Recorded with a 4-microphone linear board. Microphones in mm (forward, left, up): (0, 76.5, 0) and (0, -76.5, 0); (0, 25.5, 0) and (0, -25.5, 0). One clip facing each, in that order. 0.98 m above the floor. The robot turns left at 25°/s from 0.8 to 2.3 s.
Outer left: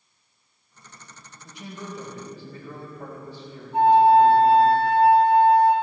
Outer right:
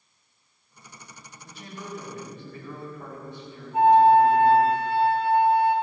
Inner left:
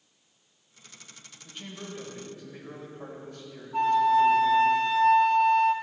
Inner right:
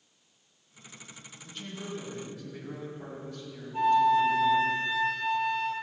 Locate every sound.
1.4 s a man speaking: 15° left (ahead or behind), 4 m; by 4.7 s 35° left (ahead or behind), 4 m
3.7 s a flute: 75° left (ahead or behind), 1.3 m